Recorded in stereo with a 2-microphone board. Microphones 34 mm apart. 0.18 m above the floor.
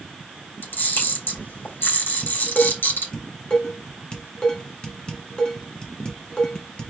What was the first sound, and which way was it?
A camera shutter, 85° left.